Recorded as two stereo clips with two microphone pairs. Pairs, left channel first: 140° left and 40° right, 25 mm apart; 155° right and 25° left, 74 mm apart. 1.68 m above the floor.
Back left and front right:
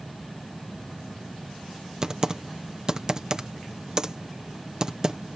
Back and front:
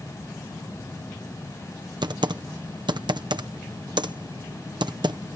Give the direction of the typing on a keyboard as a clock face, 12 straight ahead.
11 o'clock.